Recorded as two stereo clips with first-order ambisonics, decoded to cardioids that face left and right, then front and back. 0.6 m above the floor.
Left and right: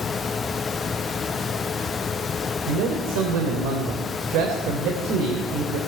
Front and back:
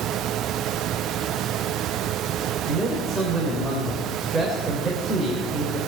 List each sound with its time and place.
2.7 s a man speaking: 105° right, 2.5 m